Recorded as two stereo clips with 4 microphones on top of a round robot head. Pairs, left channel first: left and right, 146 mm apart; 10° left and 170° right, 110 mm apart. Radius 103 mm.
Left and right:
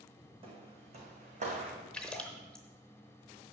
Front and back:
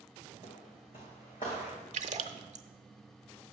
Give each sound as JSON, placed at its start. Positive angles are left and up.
{"t": 0.4, "sound": "footsteps", "azimuth_deg": -40, "distance_m": 2.5}
{"t": 1.9, "sound": "a splash", "azimuth_deg": 175, "distance_m": 0.7}